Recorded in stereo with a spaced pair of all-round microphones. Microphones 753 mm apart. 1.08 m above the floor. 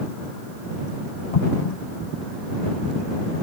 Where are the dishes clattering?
I don't hear dishes clattering.